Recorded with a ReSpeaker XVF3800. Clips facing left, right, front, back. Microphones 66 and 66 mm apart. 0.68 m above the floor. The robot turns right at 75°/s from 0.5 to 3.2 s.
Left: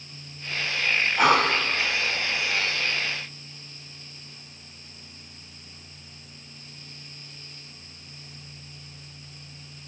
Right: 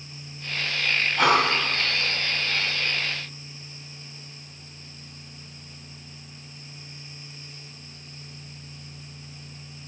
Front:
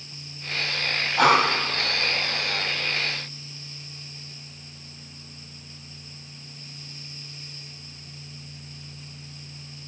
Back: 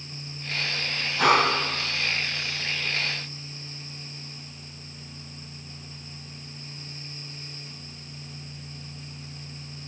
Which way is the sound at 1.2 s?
Straight ahead.